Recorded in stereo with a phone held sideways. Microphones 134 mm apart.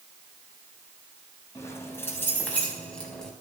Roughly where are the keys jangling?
Left.